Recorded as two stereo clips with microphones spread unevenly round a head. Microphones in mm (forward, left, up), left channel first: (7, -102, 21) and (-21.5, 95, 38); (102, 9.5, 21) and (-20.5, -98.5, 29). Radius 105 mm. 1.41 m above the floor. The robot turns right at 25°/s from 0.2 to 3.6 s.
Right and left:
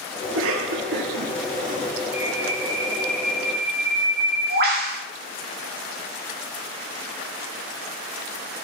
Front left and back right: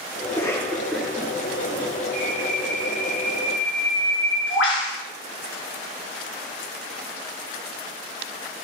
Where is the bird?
20° left, 4 m; by 5.0 s 55° left, 4 m.